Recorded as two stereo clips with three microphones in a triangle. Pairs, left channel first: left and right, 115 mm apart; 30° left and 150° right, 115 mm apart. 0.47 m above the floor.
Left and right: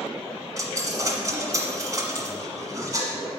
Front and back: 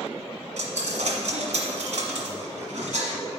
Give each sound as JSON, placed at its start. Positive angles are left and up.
{"t": 0.6, "sound": "a dropped coin", "azimuth_deg": -150, "distance_m": 1.4}